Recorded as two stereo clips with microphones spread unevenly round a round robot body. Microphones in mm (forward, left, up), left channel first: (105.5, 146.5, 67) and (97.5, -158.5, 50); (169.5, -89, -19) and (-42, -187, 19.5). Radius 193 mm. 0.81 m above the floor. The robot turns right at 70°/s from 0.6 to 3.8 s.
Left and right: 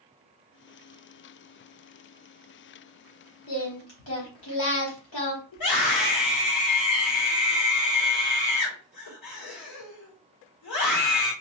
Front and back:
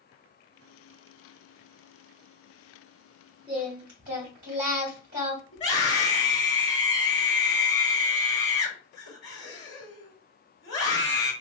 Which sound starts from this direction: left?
A scream, at 5.5 s.